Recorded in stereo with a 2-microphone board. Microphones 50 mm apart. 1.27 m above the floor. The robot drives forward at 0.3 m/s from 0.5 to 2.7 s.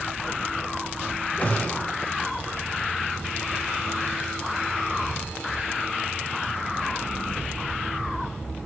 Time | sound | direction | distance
1.4 | a gunshot | 30° left (ahead or behind) | 1.0 m